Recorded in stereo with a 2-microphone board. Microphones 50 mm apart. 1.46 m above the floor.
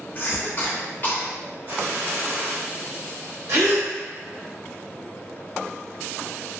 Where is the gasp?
60° right (ahead or behind), 0.8 m.